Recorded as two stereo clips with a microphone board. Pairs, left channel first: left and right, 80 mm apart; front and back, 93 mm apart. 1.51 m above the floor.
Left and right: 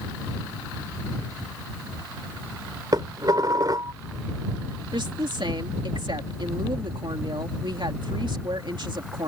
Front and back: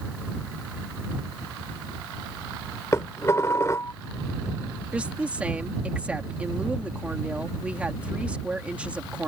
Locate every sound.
2.9 s dishes clattering: 55° right
4.9 s a woman speaking: 105° right